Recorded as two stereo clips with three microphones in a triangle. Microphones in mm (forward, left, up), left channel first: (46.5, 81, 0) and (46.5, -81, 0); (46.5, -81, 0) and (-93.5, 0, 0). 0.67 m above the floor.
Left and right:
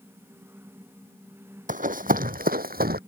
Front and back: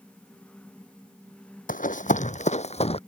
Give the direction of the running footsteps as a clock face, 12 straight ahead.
2 o'clock.